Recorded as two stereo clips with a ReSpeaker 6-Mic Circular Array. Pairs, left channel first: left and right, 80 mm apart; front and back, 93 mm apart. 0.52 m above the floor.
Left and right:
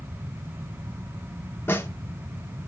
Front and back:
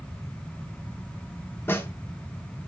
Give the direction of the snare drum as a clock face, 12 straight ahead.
10 o'clock.